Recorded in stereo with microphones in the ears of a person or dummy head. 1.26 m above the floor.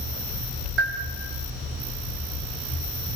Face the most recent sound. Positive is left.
turn(degrees=-75)  # may be behind; listen again after turning